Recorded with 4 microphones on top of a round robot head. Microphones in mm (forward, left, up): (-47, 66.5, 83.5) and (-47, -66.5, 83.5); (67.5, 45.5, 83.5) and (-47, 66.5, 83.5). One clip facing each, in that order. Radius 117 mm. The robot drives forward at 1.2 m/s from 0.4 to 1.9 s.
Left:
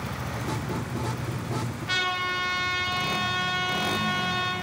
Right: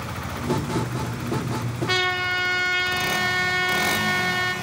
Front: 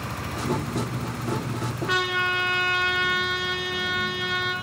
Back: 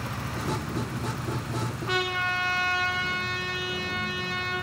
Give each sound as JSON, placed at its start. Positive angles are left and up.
{"t": 1.9, "sound": "a trumpet", "azimuth_deg": -120, "distance_m": 2.5}